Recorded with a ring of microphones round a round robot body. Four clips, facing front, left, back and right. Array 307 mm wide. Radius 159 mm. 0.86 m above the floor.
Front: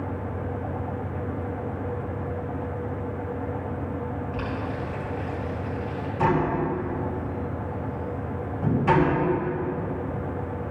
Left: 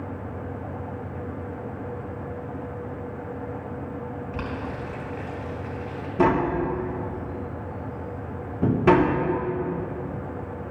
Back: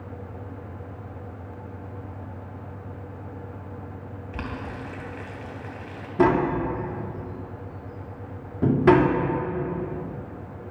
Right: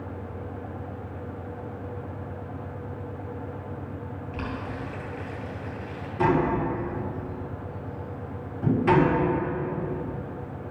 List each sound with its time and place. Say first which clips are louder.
4.3 s boiling: even, front 4 dB; 160° left, 3 m
6.2 s tapping: left 2 dB, back 3 dB; 140° left, 1.6 m